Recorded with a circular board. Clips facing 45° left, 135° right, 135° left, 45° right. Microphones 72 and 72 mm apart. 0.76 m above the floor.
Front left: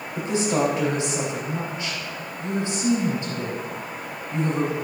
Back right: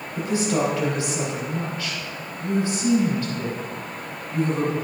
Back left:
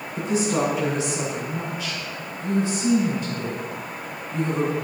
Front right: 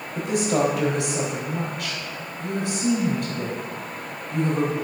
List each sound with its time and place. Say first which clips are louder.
0.1 s a woman speaking: even, front right 1 dB; 25° right, 4 m